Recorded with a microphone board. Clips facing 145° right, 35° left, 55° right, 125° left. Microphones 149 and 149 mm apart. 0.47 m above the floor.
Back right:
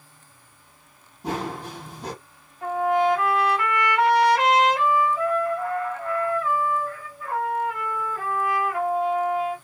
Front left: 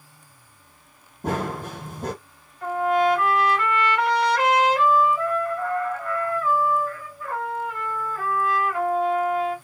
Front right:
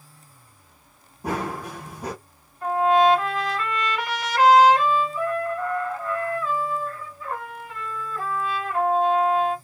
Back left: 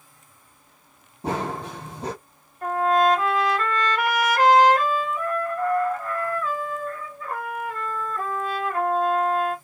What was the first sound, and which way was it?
Running footsteps, 65° left.